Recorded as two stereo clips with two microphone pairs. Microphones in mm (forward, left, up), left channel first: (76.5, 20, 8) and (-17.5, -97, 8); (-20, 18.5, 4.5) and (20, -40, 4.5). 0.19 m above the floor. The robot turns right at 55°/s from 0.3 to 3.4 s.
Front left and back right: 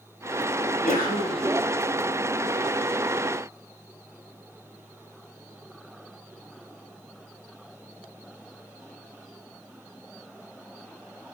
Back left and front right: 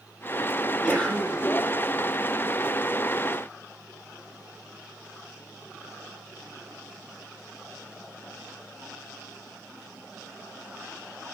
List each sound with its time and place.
0.6 s a sneeze: 25° left, 5 m; by 1.4 s 75° left, 5 m